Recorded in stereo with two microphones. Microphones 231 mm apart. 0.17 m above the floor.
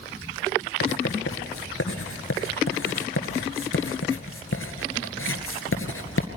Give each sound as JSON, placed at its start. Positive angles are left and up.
{"t": 0.8, "sound": "writing", "side_deg": 65, "distance_m": 1.9}